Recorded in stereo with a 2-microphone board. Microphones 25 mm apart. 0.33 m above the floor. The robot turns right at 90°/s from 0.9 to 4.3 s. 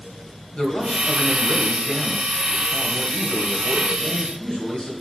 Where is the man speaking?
125° left, 2 m; by 4.9 s 70° left, 2 m.